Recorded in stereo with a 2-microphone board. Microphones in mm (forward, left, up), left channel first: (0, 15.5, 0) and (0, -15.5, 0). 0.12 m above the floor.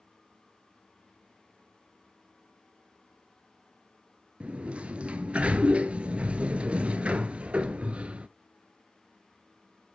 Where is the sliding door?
40° right (ahead or behind), 0.5 m.